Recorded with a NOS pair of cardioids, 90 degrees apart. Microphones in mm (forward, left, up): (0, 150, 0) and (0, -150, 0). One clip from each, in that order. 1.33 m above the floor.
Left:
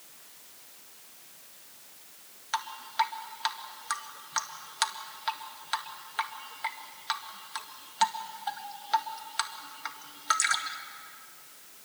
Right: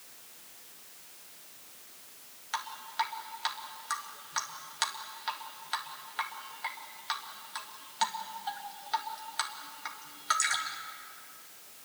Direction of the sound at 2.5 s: 20° left.